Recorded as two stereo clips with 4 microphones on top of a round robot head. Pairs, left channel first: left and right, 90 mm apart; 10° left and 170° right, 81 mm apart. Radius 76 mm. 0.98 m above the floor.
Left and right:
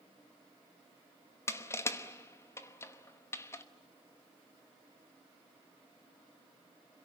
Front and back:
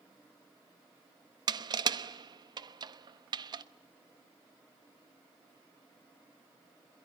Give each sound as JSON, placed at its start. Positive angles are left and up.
{"t": 1.5, "sound": "crushing", "azimuth_deg": 155, "distance_m": 1.0}